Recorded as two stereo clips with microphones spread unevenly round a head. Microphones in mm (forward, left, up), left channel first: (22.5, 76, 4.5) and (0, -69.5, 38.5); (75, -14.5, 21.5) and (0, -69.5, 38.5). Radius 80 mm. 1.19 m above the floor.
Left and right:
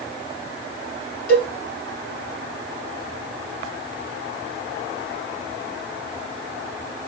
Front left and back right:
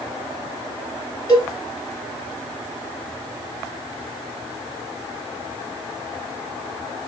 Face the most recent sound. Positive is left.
turn(degrees=110)